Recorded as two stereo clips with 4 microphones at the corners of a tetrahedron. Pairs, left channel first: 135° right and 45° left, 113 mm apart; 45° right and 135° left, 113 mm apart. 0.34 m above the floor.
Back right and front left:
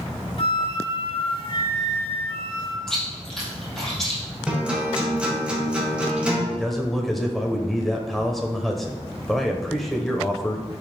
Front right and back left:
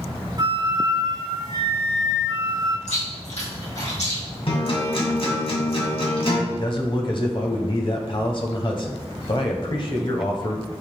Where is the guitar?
35° right, 2 m.